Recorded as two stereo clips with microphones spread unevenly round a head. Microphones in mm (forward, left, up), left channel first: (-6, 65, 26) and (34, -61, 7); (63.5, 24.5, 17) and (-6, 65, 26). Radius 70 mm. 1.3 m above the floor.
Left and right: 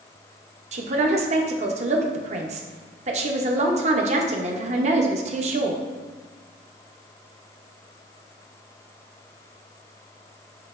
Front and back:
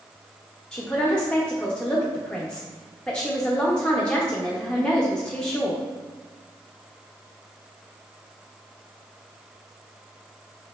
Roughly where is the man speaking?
Right.